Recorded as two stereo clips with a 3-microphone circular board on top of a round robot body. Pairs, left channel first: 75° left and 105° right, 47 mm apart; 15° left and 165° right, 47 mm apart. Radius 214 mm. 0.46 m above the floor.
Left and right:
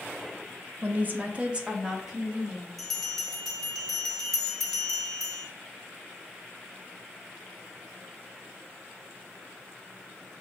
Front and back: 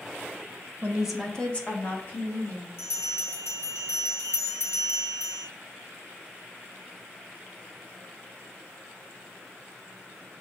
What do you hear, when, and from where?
0.8 s a woman speaking: 125° right, 1.0 m; by 2.7 s 20° right, 2.5 m
2.8 s a bell: 10° right, 1.5 m